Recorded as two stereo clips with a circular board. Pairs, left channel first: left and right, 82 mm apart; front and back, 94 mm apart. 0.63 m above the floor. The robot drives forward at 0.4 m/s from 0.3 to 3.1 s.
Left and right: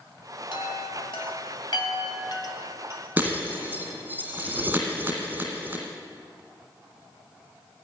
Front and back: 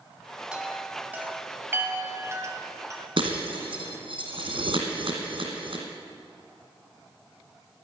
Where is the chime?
100° left, 1.6 m; by 3.0 s 130° left, 2 m.